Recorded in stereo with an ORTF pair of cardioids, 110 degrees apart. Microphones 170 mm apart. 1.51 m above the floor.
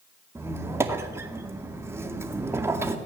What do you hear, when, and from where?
0.3 s a squeak: 15° right, 2 m